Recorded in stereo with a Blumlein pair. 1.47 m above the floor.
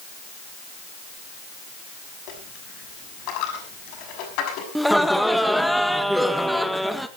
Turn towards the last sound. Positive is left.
turn(degrees=0)